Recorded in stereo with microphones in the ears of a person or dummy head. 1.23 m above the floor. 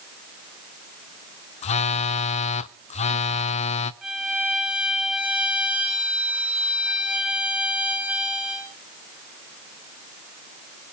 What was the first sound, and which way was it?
A phone buzzing, 35° left (ahead or behind).